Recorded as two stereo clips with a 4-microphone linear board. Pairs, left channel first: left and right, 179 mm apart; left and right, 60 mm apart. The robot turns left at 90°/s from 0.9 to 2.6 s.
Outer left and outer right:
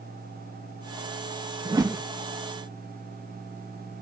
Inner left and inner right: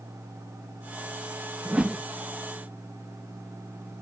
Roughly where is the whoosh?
Behind right.